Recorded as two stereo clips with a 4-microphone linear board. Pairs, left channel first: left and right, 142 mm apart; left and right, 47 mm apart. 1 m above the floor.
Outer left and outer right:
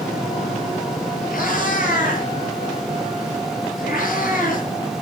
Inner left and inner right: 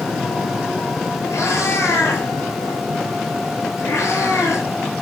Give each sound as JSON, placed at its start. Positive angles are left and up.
{"t": 1.3, "sound": "a cat meowing", "side_deg": 85, "distance_m": 9.0}